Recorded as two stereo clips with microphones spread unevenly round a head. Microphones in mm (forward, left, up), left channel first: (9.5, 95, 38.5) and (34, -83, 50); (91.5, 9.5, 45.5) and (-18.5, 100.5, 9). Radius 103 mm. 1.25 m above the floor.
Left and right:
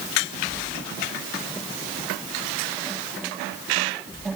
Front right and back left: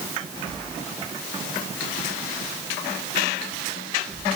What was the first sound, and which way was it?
Only background noise.